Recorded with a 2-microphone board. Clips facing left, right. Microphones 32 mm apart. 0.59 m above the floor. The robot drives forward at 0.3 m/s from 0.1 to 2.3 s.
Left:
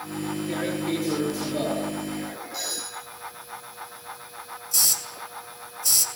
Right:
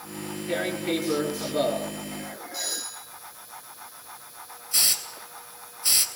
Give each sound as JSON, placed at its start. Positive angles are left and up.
{"t": 0.5, "sound": "tearing paper", "side_deg": -20, "distance_m": 5.0}
{"t": 2.5, "sound": "a doorbell", "side_deg": 5, "distance_m": 5.0}
{"t": 4.7, "sound": "a hiss", "side_deg": -35, "distance_m": 2.5}